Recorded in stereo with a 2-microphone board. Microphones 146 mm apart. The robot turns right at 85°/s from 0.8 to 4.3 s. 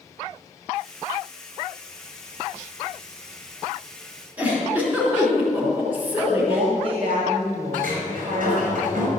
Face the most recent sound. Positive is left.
turn(degrees=-85)